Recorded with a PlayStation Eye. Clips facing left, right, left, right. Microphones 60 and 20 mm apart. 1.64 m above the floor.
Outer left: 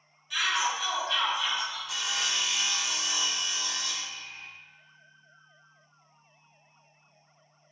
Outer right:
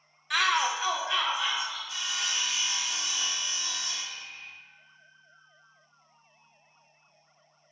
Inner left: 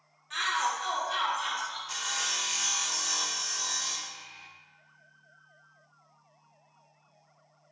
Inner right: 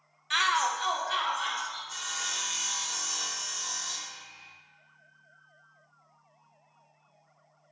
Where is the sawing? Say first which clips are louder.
Outer left 2 dB, inner left 6 dB; 80° left, 0.5 m.